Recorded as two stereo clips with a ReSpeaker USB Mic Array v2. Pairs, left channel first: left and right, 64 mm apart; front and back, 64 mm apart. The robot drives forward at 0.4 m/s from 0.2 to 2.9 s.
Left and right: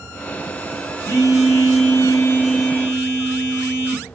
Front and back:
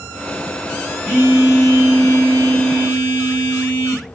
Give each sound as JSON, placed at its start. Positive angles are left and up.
{"t": 1.1, "sound": "a phone buzzing", "azimuth_deg": 120, "distance_m": 1.0}